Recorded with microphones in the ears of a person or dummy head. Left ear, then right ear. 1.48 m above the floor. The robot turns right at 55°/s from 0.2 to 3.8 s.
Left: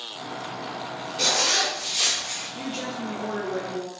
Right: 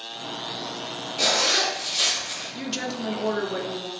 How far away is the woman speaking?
About 0.5 m.